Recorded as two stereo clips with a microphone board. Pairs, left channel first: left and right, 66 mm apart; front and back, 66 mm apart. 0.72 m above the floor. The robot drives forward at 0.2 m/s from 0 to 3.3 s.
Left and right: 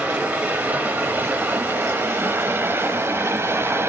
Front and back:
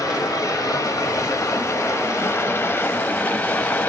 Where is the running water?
20° right, 1.0 m; by 3.9 s 60° right, 0.6 m.